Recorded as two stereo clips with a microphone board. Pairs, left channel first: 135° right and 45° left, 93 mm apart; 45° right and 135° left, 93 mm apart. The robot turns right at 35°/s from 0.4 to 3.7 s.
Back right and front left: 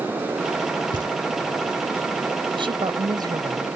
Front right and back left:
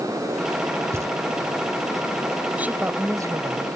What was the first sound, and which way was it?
Knocking, 80° left.